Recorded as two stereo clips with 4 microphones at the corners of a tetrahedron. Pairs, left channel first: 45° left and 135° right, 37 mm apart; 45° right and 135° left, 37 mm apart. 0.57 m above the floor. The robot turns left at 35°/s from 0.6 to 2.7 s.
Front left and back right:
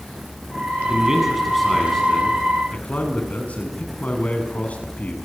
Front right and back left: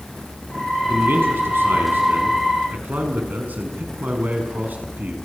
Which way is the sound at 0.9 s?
160° left.